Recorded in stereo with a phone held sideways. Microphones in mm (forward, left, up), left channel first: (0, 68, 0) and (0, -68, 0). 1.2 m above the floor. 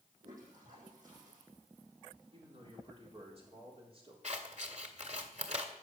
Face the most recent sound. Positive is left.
turn(degrees=-55)  # may be behind; listen again after turning